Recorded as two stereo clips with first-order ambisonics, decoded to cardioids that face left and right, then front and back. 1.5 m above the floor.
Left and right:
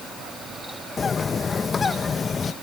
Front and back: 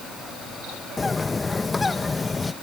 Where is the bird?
55° left.